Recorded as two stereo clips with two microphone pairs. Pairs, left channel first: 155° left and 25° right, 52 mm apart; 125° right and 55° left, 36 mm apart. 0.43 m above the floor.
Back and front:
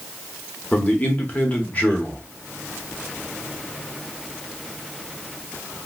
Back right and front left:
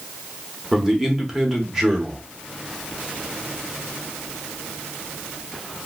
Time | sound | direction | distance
0.7 | a man speaking | 120° left | 1.0 m